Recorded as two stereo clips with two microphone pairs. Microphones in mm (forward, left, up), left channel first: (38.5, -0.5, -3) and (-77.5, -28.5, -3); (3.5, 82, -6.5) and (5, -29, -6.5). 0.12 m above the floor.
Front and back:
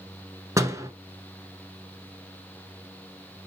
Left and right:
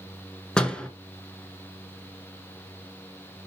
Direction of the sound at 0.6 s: 160° left.